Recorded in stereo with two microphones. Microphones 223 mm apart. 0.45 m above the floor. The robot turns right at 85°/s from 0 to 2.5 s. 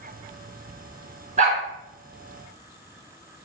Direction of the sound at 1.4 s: 30° right (ahead or behind).